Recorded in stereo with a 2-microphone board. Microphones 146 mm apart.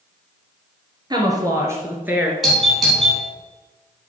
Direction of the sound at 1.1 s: 30° right (ahead or behind).